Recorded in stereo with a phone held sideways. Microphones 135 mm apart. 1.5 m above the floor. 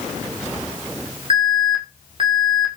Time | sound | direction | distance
1.3 | an alarm | 40° right (ahead or behind) | 6.5 m